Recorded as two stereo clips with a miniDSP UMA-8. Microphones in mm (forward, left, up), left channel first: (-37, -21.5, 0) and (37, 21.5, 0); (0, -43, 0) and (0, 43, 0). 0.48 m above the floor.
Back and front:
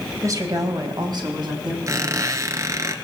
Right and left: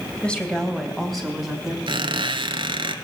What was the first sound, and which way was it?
A woman speaking, 15° right.